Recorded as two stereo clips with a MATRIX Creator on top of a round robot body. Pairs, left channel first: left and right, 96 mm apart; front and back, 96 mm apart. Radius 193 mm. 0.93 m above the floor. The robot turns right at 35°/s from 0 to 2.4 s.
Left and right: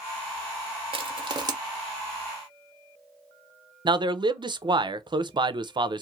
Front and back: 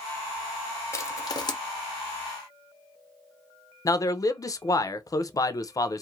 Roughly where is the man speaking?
Ahead right.